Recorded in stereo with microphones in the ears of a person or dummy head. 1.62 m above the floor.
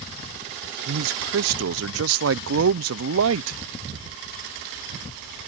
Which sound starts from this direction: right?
A man speaking, at 0.9 s.